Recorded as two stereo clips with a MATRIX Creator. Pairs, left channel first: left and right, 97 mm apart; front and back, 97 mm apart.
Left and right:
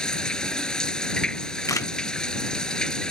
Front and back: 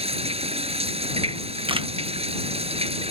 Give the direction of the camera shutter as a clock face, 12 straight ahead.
7 o'clock.